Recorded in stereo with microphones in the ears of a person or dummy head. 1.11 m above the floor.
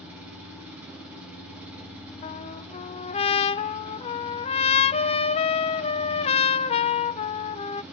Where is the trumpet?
25° left (ahead or behind), 0.6 m.